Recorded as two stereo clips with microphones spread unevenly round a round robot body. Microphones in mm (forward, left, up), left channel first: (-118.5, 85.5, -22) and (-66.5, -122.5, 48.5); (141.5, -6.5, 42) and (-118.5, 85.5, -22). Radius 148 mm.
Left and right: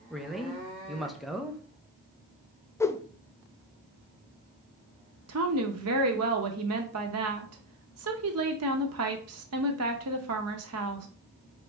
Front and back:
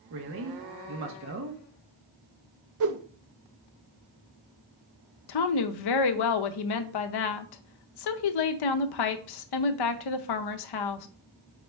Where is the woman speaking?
30° right, 0.6 m.